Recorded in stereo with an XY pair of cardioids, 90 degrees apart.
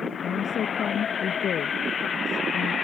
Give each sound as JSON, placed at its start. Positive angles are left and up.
{"t": 0.2, "sound": "a woman speaking", "azimuth_deg": 65}